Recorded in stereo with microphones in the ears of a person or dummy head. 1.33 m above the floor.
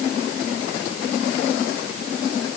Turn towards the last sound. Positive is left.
No sound to turn to.